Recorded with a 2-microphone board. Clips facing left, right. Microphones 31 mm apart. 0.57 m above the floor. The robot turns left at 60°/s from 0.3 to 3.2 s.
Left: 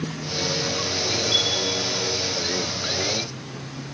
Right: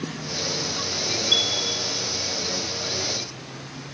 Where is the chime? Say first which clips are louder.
Right 2 dB; 40° right (ahead or behind), 2.5 m; by 1.5 s 50° right (ahead or behind), 2.5 m.